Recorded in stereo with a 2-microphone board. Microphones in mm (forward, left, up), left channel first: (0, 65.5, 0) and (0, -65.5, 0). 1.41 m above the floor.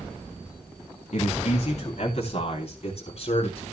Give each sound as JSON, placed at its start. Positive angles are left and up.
{"t": 1.1, "sound": "a man speaking", "side_deg": 60, "distance_m": 2.5}